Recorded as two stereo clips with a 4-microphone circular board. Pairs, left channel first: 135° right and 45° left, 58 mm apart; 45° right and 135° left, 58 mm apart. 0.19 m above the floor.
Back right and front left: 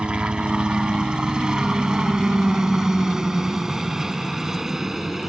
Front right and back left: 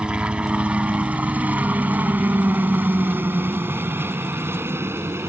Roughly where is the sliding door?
I don't hear a sliding door.